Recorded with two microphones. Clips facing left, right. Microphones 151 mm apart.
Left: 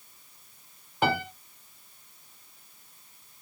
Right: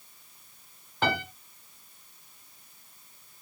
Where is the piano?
10° left (ahead or behind), 2.5 m.